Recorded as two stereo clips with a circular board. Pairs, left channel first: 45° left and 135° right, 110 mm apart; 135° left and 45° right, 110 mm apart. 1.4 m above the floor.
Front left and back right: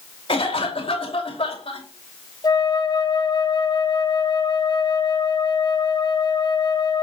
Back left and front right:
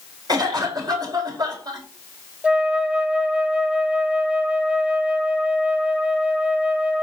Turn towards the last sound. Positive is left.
turn(degrees=30)